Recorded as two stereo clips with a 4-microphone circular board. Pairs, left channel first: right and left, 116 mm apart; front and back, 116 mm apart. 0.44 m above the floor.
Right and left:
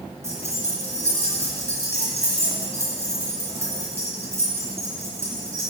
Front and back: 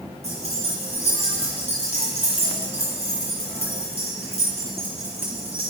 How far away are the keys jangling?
About 3.5 m.